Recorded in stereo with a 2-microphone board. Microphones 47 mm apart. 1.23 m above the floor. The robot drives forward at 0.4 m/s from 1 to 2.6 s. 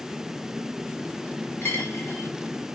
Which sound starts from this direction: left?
A dropped coin, at 1.6 s.